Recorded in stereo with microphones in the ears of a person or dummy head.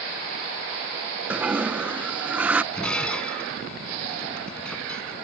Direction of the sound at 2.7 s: 5° left (ahead or behind).